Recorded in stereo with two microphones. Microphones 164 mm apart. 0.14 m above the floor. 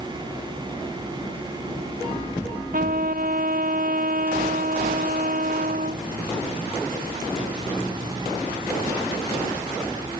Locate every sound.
2.7 s a trumpet: 60° right (ahead or behind)